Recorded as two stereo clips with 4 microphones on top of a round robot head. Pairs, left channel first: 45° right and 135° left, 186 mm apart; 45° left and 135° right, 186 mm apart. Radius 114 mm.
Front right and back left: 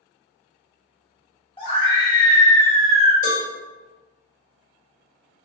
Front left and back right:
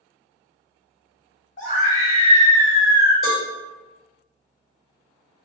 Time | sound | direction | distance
1.6 | a scream | 10° left | 1.5 m
3.2 | a cowbell | 45° right | 1.4 m